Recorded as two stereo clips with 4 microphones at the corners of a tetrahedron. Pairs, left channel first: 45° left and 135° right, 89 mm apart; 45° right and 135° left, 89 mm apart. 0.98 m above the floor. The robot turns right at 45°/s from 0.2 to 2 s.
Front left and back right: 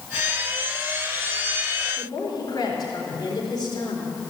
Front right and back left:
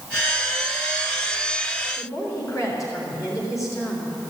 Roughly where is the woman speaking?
Ahead.